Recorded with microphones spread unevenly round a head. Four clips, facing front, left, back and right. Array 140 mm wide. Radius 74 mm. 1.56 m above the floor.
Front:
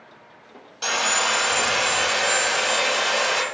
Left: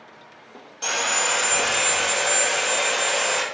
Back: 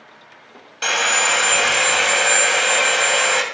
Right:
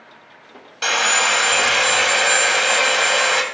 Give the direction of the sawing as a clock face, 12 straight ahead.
4 o'clock.